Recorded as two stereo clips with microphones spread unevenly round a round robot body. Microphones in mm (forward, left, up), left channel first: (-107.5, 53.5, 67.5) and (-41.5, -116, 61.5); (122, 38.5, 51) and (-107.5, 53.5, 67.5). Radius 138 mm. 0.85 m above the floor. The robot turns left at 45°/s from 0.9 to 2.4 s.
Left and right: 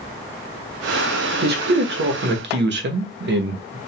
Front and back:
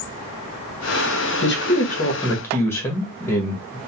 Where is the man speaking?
40° right, 0.8 m; by 3.8 s 80° right, 0.8 m.